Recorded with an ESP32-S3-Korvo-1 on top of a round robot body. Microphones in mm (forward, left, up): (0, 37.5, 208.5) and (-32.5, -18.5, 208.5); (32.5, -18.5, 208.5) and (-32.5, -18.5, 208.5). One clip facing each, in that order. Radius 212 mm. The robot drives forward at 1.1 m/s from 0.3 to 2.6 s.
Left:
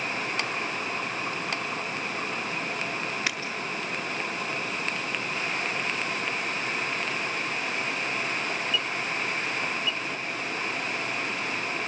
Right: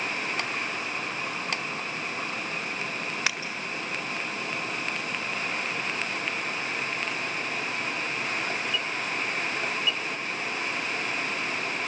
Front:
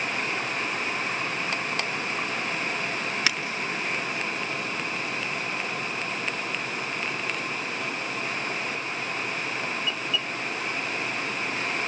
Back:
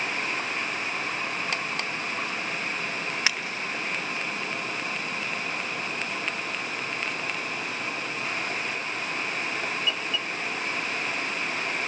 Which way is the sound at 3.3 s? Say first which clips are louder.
Right 3 dB, even; 120° right.